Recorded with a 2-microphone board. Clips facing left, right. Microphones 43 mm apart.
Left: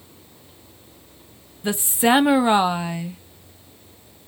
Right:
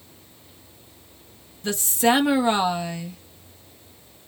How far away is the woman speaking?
About 0.5 m.